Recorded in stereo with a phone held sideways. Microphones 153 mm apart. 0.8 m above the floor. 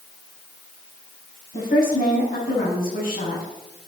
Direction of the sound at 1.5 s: 65° left (ahead or behind).